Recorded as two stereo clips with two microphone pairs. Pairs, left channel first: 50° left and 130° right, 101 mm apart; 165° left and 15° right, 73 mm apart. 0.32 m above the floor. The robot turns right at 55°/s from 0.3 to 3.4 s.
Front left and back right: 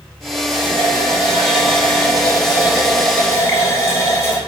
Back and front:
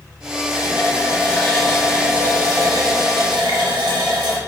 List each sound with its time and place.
0.5 s a running tap: 170° right, 3.5 m; by 4.4 s 15° right, 3.5 m